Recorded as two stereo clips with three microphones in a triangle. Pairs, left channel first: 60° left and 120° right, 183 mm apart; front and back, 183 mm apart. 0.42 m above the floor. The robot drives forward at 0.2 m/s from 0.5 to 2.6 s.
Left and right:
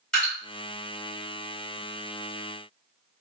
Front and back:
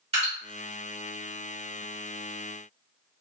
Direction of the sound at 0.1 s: 145° left.